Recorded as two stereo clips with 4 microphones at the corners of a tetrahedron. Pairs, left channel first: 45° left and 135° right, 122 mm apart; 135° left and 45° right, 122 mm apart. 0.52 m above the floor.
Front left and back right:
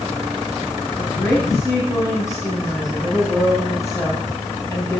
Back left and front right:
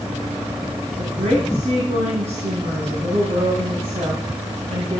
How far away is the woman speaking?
About 3.5 m.